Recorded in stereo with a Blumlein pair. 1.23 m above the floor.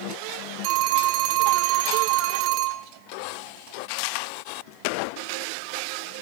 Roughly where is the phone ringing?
Ahead right.